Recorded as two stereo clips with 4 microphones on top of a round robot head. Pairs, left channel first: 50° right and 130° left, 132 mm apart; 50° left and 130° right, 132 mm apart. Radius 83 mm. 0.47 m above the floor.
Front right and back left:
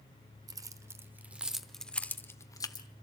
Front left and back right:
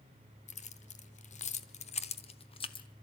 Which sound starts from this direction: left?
Keys jangling, at 0.5 s.